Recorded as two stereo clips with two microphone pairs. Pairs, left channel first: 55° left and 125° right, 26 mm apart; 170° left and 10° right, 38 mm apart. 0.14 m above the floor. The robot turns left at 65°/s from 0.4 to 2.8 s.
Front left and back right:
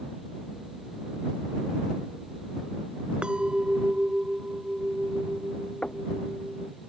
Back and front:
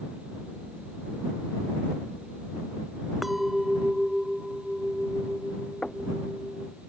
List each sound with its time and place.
3.2 s a clink: 100° right
5.8 s knocking: 100° left